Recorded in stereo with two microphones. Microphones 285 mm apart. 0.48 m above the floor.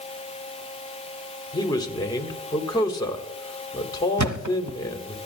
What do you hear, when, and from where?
1.5 s a man speaking: 15° left (ahead or behind), 1.5 m
4.2 s a thud: 85° right, 0.8 m